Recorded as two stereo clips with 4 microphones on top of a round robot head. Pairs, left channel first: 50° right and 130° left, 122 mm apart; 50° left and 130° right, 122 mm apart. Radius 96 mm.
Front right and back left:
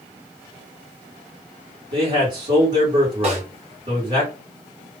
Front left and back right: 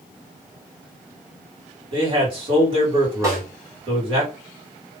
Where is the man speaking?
175° right, 1.8 m.